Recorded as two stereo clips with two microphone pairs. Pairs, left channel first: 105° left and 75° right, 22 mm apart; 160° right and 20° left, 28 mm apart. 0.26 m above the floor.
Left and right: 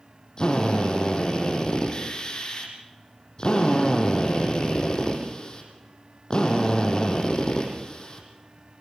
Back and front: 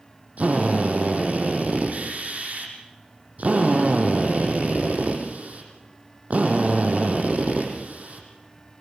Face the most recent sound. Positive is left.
turn(degrees=50)